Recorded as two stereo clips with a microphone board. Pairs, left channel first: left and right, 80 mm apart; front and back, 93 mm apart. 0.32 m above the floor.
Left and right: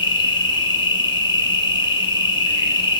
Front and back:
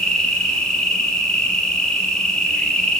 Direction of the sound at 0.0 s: 80° left.